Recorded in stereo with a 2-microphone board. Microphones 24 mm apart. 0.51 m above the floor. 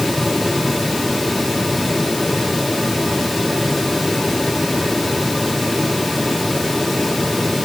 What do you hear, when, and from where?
Only background noise.